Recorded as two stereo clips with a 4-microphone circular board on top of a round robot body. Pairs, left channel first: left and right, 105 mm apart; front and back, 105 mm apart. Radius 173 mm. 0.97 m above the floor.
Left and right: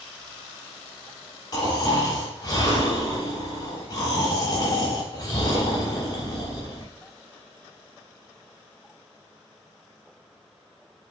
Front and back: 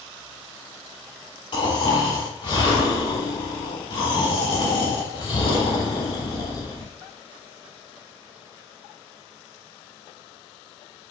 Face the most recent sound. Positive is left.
turn(degrees=40)